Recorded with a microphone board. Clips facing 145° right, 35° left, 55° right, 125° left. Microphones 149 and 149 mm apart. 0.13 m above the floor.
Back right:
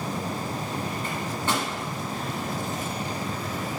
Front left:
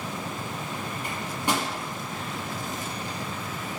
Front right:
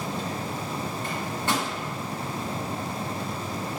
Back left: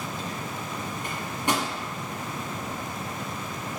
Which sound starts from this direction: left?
A microwave, at 1.0 s.